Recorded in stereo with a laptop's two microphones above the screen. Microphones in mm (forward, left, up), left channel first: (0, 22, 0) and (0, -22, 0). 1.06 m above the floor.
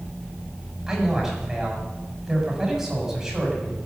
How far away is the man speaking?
About 7.5 m.